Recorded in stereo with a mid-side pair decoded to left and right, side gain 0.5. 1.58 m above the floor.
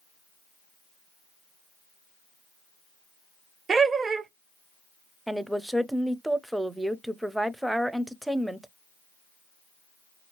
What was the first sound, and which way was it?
Laughter, 35° right.